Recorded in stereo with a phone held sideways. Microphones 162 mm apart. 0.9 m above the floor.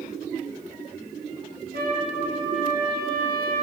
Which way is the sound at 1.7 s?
80° right.